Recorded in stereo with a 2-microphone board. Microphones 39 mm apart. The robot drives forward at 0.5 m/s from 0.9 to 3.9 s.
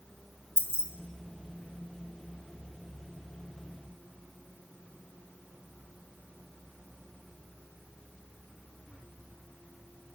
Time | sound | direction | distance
0.6 | keys jangling | 70° left (ahead or behind) | 0.8 m